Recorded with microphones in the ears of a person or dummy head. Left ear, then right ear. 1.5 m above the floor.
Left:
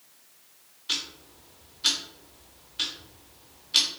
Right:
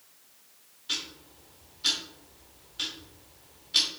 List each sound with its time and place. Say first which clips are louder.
0.9 s ticking: left 3 dB; 15° left (ahead or behind), 0.7 m